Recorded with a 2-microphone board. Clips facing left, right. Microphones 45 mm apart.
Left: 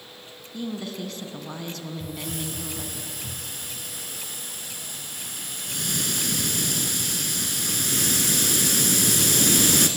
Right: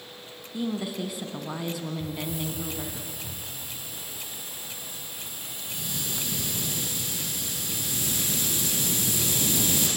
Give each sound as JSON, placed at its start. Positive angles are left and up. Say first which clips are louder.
{"t": 0.5, "sound": "a woman speaking", "louder": "right 2 dB", "side_deg": -10, "distance_m": 2.5}
{"t": 2.0, "sound": "a hiss", "louder": "right 1 dB", "side_deg": 75, "distance_m": 3.0}